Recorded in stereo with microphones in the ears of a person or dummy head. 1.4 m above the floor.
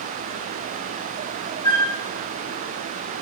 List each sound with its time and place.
1.6 s a flute: 25° left (ahead or behind), 1.1 m